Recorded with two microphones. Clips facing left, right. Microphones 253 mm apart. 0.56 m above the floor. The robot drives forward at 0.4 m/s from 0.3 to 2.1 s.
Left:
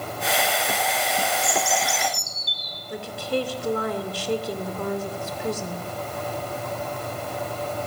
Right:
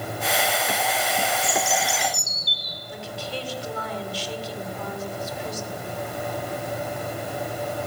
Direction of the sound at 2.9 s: 60° left (ahead or behind).